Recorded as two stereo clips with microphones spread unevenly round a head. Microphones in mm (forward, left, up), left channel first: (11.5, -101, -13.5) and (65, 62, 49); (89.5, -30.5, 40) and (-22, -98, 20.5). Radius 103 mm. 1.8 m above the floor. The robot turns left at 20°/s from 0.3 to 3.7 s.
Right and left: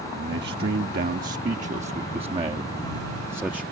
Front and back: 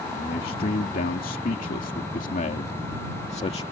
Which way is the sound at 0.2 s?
60° left.